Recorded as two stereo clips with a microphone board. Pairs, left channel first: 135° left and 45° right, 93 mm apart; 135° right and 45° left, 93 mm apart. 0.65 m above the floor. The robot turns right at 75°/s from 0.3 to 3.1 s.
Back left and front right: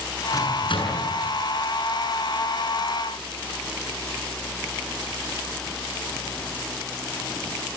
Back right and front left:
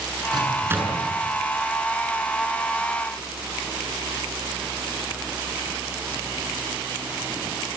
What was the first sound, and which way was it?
A microwave, 80° left.